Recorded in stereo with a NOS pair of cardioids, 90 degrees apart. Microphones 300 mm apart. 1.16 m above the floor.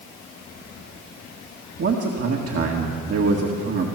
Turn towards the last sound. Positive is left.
turn(degrees=-55)